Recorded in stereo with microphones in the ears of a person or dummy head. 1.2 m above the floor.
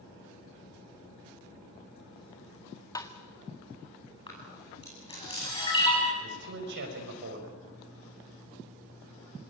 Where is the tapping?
25° left (ahead or behind), 1.5 m.